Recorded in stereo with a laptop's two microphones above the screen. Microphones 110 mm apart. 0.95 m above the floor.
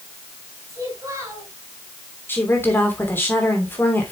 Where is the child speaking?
30° right (ahead or behind), 4 m.